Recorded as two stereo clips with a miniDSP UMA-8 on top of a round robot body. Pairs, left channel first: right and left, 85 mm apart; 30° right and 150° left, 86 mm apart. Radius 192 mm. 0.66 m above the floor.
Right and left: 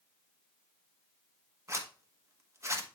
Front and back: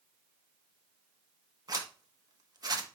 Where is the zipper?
135° left, 1.4 m.